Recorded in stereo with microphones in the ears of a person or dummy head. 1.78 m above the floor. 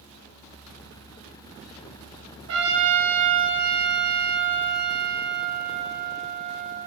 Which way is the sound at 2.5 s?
60° right (ahead or behind).